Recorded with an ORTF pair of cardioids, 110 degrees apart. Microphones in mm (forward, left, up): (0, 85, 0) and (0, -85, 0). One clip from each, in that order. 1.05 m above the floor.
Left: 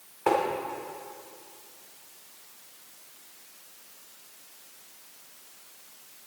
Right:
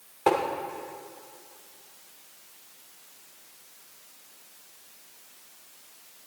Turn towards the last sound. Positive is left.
turn(degrees=-25)